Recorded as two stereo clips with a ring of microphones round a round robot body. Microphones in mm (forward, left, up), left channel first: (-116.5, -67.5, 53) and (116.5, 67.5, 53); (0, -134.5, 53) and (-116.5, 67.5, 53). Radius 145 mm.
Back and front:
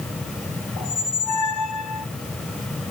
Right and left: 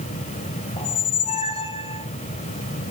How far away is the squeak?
About 1.8 m.